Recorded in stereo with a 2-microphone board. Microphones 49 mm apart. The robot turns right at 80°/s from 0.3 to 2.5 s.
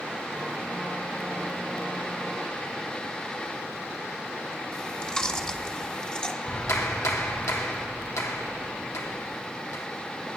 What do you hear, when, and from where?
4.7 s chewing: 20° left (ahead or behind), 1.3 m
6.4 s a clap: 80° left, 3 m